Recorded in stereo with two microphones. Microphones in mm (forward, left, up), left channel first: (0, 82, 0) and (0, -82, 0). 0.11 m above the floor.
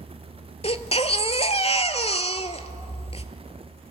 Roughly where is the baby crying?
Left.